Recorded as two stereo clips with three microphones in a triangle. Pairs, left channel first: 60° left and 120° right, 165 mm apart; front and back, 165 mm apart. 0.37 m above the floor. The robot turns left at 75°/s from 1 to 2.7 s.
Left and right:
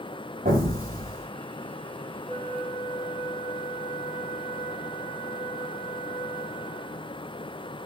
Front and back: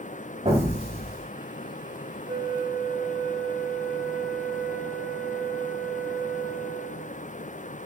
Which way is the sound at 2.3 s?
120° left.